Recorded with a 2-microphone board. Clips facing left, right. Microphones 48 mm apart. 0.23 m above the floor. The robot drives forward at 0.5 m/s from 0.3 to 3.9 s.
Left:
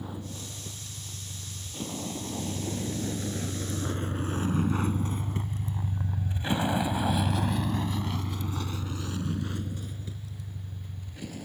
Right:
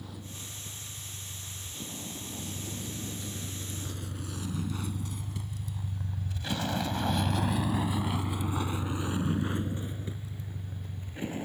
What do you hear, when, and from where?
0.0 s a vehicle: 25° left (ahead or behind); by 11.4 s 30° right (ahead or behind)